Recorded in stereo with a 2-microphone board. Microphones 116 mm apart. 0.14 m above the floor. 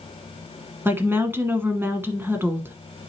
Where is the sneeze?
No sneeze in this recording.